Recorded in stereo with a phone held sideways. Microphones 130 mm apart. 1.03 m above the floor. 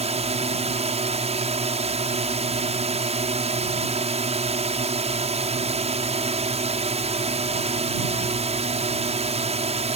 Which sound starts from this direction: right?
A drone, at 0.0 s.